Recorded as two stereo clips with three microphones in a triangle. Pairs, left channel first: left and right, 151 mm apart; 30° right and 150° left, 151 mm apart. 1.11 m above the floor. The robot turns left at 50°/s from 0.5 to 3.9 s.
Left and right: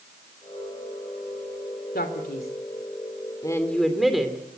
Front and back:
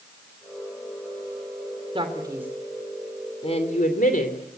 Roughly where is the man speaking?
Left.